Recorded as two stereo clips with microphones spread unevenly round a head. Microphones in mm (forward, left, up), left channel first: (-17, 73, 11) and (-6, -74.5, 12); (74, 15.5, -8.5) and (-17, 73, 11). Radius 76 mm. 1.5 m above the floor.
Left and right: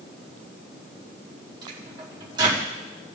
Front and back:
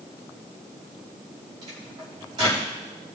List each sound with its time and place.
1.6 s a microwave: 145° right, 3.5 m